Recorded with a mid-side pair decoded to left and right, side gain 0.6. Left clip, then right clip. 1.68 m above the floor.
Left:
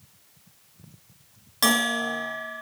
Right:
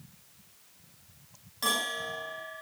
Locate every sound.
1.6 s a bell: 55° left, 3.5 m